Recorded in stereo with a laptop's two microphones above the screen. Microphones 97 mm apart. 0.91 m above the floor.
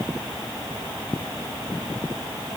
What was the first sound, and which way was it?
Only background noise.